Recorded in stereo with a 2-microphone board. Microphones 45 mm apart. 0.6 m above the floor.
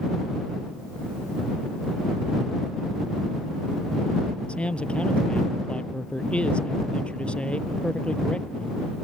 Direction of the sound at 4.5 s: 20° left (ahead or behind).